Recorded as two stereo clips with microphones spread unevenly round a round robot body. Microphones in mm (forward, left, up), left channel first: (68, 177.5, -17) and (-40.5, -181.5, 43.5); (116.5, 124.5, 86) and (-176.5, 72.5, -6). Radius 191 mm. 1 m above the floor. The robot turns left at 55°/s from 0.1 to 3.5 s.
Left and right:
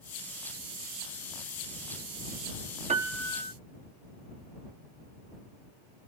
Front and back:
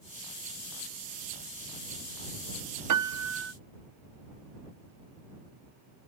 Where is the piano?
Straight behind; by 3.5 s 145° left.